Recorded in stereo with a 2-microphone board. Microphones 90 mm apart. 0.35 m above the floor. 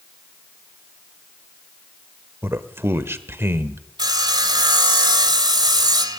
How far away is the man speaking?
About 0.9 m.